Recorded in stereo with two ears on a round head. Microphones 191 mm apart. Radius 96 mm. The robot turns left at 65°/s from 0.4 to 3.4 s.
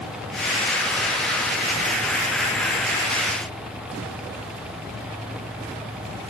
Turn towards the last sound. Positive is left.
No sound to turn to.